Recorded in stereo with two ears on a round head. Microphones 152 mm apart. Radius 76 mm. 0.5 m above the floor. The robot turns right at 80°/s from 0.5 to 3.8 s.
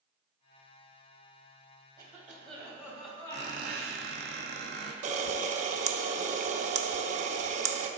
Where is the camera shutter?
45° right (ahead or behind), 0.6 m.